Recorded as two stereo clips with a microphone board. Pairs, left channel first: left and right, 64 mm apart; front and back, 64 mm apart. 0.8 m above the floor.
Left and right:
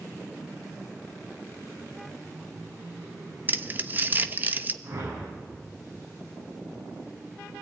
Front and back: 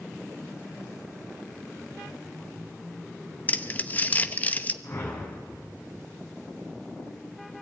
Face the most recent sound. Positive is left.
turn(degrees=-55)